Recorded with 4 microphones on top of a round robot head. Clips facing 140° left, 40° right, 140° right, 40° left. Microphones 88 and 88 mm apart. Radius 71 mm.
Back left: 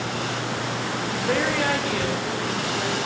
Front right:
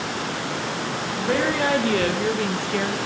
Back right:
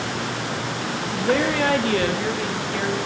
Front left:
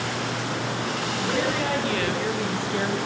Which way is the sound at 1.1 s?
130° right.